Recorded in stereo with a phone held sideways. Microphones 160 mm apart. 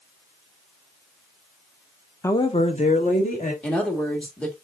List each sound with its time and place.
2.2 s a woman speaking: 15° left (ahead or behind), 0.5 m; by 3.5 s 55° left (ahead or behind), 2.0 m
3.6 s a woman speaking: 5° left (ahead or behind), 1.5 m